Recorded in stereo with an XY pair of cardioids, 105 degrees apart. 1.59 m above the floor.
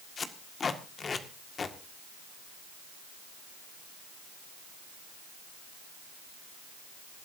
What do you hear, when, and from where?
0.2 s tape being pulled: 40° left, 1.8 m